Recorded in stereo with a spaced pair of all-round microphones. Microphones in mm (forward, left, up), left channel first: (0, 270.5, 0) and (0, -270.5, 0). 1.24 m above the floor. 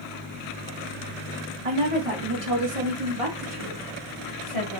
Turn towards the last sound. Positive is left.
turn(degrees=-60)  # may be behind; listen again after turning